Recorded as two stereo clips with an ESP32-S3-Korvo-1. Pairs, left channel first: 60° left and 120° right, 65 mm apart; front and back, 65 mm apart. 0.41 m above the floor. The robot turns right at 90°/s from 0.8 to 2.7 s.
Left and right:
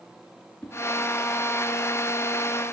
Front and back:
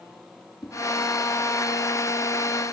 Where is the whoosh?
5° right, 3 m.